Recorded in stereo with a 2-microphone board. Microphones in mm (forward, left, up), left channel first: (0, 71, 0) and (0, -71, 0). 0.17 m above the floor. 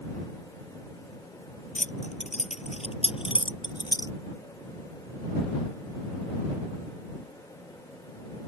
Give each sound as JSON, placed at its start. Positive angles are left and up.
{"t": 1.8, "sound": "keys jangling", "side_deg": 65}